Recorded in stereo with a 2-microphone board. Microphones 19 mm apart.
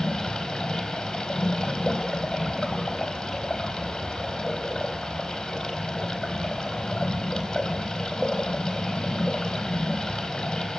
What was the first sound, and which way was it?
Running water, 20° left (ahead or behind).